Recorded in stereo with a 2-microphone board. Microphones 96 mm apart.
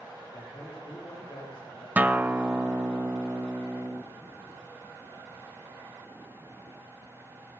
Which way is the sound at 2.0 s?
15° right (ahead or behind).